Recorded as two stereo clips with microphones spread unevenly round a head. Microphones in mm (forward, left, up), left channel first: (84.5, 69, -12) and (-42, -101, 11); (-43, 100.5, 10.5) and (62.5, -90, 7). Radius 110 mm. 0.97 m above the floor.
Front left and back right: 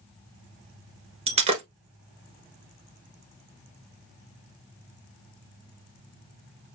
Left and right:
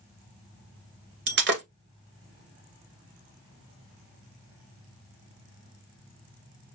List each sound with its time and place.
1.3 s breaking glass: 85° right, 1.3 m